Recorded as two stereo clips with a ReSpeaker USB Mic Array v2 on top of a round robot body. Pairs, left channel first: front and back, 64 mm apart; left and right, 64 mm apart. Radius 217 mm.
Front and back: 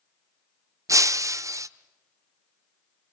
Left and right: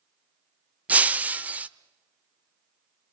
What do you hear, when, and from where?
0.9 s breaking glass: 155° right, 0.9 m